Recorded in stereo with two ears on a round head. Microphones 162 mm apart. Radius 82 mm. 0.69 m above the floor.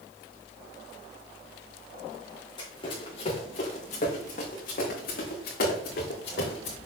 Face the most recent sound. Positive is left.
turn(degrees=70)  # may be behind; listen again after turning